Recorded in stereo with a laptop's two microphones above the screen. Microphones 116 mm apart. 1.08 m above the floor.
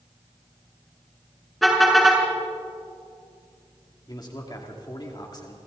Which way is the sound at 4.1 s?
35° left (ahead or behind).